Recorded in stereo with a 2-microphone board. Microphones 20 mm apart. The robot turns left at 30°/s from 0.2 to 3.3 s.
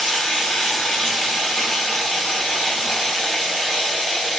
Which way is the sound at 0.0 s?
120° left.